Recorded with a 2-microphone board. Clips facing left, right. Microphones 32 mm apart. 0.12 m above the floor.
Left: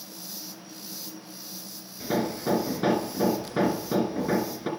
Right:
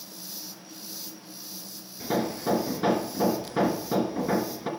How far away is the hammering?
About 1.2 m.